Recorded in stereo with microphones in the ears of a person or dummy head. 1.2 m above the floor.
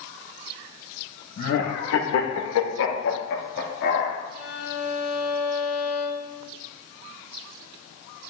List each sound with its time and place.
1.4 s laughter: 40° left (ahead or behind), 1.2 m; by 4.2 s 60° left (ahead or behind), 2.5 m
4.3 s a violin: 80° left, 1.6 m